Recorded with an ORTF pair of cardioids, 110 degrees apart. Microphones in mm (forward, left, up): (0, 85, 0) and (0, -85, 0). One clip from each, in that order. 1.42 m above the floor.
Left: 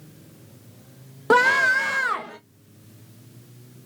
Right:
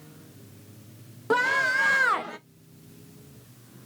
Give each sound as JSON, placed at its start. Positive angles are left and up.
{"t": 1.3, "sound": "a scream", "azimuth_deg": 40, "distance_m": 0.7}